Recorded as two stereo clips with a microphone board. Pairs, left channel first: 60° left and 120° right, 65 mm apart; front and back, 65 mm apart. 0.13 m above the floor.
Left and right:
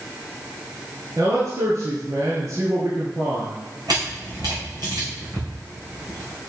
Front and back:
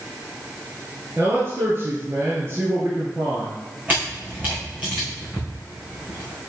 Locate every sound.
1.2 s a man speaking: 140° right, 1.9 m
3.9 s a camera shutter: 115° right, 3.5 m